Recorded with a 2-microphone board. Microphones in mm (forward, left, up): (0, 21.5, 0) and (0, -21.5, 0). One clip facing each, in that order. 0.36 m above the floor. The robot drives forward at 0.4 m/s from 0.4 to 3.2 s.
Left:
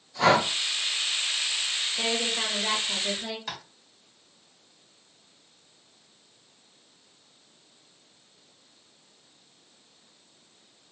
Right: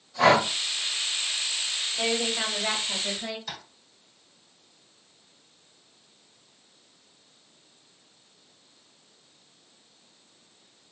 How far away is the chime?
No chime in this recording.